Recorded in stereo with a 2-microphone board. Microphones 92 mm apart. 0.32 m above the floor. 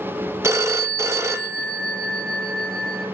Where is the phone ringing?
30° right (ahead or behind), 0.7 m.